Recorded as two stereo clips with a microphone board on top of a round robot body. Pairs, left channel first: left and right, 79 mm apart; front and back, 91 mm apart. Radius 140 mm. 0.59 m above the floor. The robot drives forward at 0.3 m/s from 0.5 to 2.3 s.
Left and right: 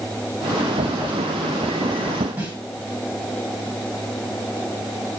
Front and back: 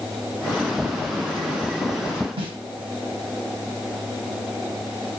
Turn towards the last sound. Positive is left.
turn(degrees=-165)